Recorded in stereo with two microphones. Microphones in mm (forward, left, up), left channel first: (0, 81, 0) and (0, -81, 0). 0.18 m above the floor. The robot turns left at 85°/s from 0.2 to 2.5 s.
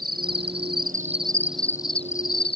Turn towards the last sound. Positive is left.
turn(degrees=100)